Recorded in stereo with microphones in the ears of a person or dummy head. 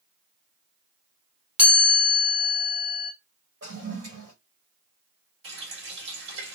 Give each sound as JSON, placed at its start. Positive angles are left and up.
{"t": 1.6, "sound": "a chime", "side_deg": -5, "distance_m": 0.9}
{"t": 3.6, "sound": "a toilet flushing", "side_deg": -55, "distance_m": 1.4}
{"t": 5.4, "sound": "a running tap", "side_deg": -75, "distance_m": 1.5}